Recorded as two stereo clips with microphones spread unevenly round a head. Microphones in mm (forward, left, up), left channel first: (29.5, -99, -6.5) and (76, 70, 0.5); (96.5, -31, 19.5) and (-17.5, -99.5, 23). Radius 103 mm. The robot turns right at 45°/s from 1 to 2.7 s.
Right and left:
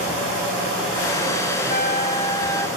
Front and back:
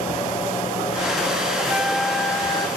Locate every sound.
1.6 s a trumpet: 80° right, 1.7 m; by 2.7 s 30° right, 1.7 m